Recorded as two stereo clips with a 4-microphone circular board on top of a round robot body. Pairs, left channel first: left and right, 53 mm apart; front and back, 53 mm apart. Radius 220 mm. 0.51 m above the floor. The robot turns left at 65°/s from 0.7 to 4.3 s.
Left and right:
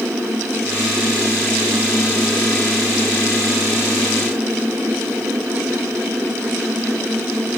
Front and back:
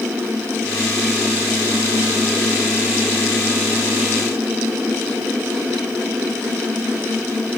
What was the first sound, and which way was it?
Only background noise.